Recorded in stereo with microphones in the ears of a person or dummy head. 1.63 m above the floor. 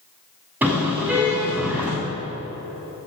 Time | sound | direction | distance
0.6 | a car horn | 15° right (ahead or behind) | 8 m